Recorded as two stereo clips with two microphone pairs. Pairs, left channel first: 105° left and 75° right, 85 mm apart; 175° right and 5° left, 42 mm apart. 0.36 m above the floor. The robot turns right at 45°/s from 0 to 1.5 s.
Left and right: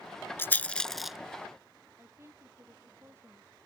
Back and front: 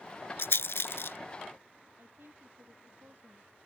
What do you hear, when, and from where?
0.4 s a rattle: 170° left; by 1.2 s 155° right
2.0 s a woman speaking: 15° right